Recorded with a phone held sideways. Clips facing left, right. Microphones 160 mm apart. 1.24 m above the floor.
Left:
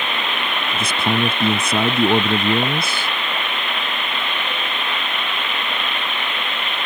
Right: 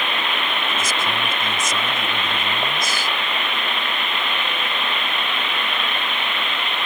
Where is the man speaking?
65° left (ahead or behind).